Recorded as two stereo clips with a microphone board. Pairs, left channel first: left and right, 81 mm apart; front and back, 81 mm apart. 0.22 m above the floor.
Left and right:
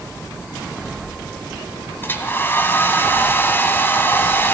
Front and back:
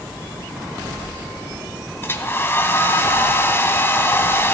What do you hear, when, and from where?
2.0 s a hair dryer: 45° left, 1.3 m